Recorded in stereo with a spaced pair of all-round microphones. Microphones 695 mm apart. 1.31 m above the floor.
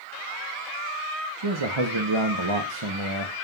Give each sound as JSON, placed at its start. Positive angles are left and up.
{"t": 1.4, "sound": "a man speaking", "side_deg": -40, "distance_m": 0.9}